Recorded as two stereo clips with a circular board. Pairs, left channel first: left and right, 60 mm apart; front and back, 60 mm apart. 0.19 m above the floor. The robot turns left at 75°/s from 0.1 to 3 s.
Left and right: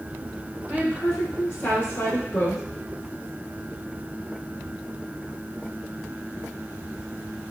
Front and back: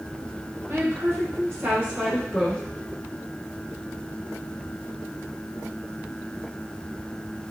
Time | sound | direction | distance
0.7 | a woman speaking | 155° right | 2.5 m